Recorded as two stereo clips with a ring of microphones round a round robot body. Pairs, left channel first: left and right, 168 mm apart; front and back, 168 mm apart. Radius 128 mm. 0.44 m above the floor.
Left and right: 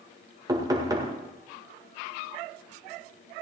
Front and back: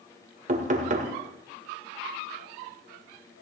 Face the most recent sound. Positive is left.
turn(degrees=-155)